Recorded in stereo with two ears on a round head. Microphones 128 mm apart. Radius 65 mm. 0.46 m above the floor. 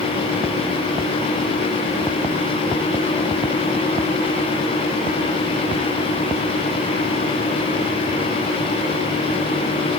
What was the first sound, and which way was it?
Only background noise.